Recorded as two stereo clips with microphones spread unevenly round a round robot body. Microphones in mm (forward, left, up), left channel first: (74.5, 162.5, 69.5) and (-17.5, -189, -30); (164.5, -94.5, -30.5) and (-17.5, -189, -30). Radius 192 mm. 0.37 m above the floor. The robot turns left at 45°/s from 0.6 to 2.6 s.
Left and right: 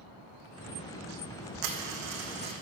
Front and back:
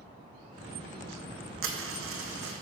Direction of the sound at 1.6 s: 135° right.